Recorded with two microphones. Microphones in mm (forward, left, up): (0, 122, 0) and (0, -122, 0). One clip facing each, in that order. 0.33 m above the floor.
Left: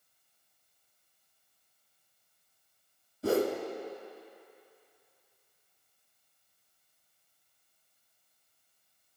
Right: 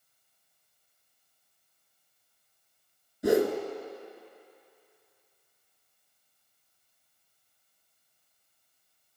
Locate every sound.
3.2 s a whoosh: 15° right (ahead or behind), 0.6 m